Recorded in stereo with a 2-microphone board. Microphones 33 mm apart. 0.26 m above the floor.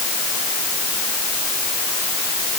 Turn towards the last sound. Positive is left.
No sound to turn to.